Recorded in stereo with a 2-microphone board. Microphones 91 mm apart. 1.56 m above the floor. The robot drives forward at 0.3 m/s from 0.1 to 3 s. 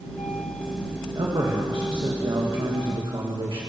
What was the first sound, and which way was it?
A man speaking, 55° right (ahead or behind).